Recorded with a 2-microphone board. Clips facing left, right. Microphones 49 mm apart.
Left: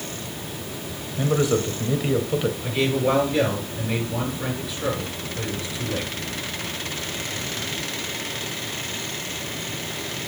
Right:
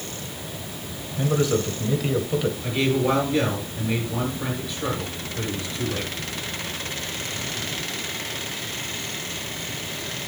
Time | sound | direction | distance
1.2 | a man speaking | 10° left (ahead or behind) | 1.6 m
2.6 | a man speaking | centre (ahead or behind) | 6 m